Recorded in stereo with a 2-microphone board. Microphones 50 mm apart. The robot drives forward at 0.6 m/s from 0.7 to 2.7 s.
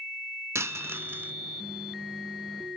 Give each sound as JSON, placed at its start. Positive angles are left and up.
{"t": 0.6, "sound": "a dropped coin", "side_deg": -65, "distance_m": 0.5}